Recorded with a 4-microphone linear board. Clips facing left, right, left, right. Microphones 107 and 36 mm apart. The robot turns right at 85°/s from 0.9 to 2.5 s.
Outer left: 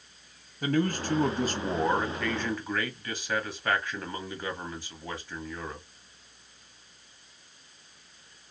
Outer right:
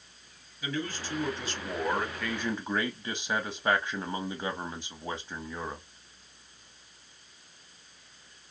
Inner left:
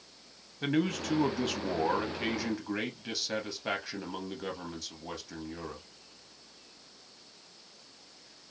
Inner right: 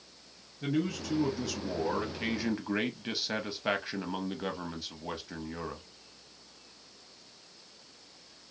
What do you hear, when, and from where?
0.6 s a man speaking: 70° left, 0.7 m; by 5.8 s 155° right, 0.7 m